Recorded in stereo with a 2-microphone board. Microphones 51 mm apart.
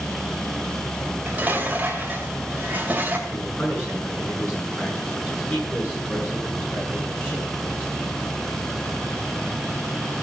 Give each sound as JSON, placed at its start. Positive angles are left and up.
{"t": 1.1, "sound": "dishes clattering", "side_deg": -30, "distance_m": 2.0}
{"t": 3.3, "sound": "a man speaking", "side_deg": 30, "distance_m": 8.5}